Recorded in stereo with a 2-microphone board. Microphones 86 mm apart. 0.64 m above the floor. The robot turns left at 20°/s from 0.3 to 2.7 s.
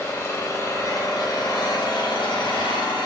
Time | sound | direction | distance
0.0 | an engine running | 145° left | 3 m